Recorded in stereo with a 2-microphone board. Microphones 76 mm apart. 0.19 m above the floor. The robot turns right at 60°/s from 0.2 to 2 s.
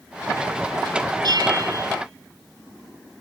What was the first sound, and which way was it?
A bell, 80° right.